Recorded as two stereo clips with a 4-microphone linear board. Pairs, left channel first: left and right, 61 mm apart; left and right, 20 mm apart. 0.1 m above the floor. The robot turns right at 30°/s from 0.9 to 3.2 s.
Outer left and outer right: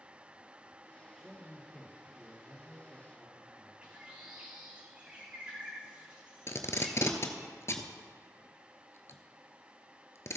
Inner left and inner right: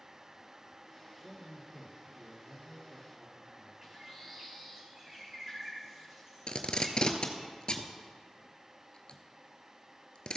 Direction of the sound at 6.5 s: 50° left (ahead or behind).